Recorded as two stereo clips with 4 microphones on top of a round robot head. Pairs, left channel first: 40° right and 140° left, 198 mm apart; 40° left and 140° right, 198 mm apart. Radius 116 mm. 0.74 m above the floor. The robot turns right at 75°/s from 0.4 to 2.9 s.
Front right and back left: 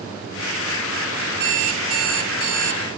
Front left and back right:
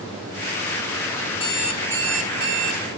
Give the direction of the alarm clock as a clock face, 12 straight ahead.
9 o'clock.